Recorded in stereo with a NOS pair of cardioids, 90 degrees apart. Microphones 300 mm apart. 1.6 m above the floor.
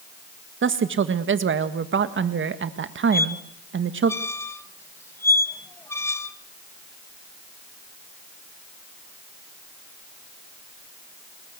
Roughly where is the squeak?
Ahead.